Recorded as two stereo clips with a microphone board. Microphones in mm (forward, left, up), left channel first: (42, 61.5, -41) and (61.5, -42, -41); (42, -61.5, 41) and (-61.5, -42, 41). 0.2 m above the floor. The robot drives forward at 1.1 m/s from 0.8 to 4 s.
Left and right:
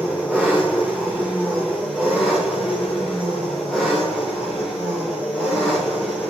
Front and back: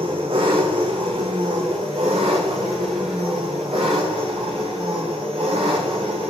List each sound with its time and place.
0.0 s an engine running: 160° right, 6 m; by 6.3 s 165° right, 9.5 m